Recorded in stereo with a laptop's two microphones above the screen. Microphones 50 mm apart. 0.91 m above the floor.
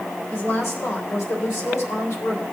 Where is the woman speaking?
60° left (ahead or behind), 3.5 m; by 2.4 s 75° left (ahead or behind), 2.5 m.